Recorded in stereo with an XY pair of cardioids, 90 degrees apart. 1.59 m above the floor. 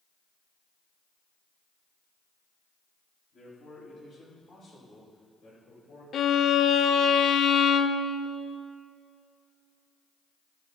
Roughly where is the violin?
Ahead left.